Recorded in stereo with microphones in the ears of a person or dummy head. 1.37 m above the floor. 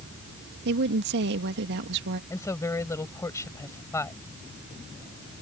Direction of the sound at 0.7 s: 60° right (ahead or behind).